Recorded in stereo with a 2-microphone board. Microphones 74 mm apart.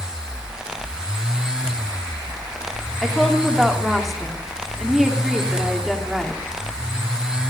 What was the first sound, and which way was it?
A woman speaking, centre (ahead or behind).